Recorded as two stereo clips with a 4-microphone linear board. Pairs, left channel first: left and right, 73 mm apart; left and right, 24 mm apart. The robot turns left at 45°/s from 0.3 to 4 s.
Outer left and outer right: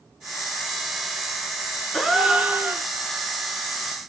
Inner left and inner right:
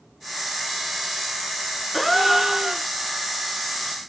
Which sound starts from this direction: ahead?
A gasp, at 1.9 s.